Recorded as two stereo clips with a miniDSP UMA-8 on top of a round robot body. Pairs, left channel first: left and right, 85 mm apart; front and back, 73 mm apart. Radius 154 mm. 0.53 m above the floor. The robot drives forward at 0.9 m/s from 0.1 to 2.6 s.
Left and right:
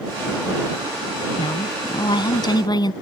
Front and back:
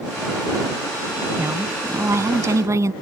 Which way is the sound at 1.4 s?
120° left.